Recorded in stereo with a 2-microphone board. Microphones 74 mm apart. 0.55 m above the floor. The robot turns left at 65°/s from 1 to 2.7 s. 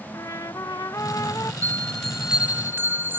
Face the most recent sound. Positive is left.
turn(degrees=-40)